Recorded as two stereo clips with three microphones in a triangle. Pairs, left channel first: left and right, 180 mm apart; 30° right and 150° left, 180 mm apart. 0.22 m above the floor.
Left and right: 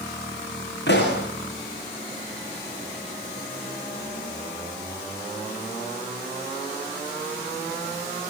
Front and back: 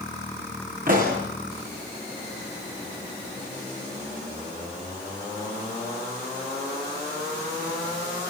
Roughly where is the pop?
Left.